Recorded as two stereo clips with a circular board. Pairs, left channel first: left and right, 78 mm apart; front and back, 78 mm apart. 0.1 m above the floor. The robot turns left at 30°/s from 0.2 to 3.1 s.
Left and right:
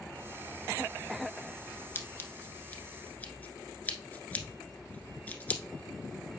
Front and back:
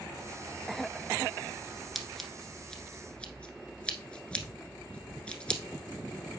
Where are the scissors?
90° left, 1.1 m; by 5.6 s 55° left, 1.1 m.